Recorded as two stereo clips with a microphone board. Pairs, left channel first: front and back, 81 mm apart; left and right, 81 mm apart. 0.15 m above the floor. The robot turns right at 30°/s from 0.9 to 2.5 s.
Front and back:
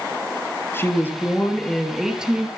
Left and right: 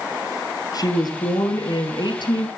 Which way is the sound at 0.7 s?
60° left.